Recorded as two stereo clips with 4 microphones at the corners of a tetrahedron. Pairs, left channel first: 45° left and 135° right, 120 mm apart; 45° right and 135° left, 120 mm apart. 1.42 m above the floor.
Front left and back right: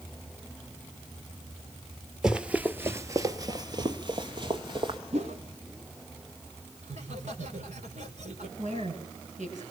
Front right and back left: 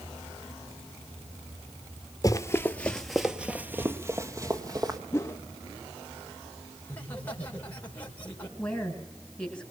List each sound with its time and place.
2.2 s running footsteps: 55° right, 1.5 m; by 5.0 s 175° right, 2.5 m
5.1 s a whoosh: 115° right, 1.8 m
6.8 s laughter: 120° right, 5.5 m
8.6 s a woman speaking: 130° right, 9.5 m